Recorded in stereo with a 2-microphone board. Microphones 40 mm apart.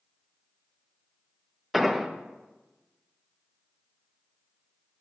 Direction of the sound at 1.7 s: 5° right (ahead or behind).